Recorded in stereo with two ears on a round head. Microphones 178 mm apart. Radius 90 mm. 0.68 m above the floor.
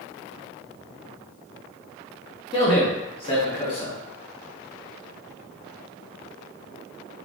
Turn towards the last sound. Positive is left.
turn(degrees=25)  # may be behind; listen again after turning